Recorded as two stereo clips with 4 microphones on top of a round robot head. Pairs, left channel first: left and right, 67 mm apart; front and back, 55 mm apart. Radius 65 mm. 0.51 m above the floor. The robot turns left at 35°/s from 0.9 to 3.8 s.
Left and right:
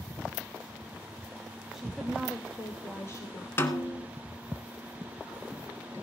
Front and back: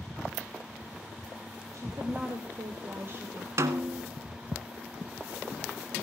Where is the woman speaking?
175° right, 2.5 m; by 3.5 s 125° left, 2.5 m.